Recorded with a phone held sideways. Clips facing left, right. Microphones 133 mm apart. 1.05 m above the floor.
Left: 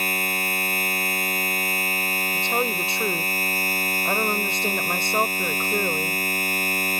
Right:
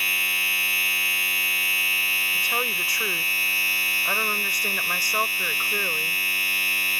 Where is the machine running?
45° left (ahead or behind).